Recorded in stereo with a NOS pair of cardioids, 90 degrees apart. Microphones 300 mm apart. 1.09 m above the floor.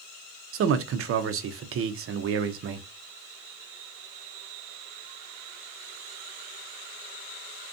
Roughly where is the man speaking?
Ahead right.